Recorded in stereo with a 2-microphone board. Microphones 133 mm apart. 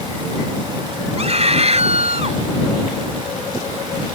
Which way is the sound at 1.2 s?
55° right (ahead or behind).